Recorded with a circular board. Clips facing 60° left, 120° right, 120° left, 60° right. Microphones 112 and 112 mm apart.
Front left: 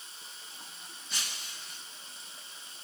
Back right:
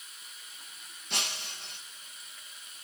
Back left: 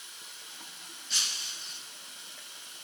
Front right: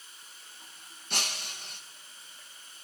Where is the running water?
120° left, 4 m.